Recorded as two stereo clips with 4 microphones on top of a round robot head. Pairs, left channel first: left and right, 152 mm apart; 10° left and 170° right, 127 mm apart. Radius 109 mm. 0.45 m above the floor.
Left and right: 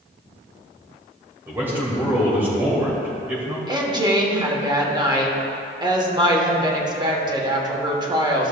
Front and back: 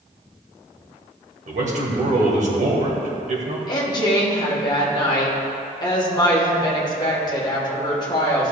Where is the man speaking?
170° right, 2 m.